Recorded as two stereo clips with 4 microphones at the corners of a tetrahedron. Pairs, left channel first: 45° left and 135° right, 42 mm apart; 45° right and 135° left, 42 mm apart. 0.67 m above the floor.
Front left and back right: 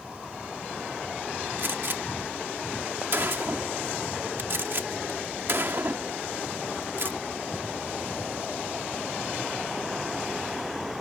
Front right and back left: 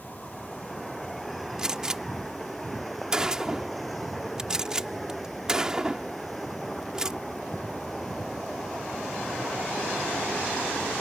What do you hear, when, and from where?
1.6 s a gunshot: 150° right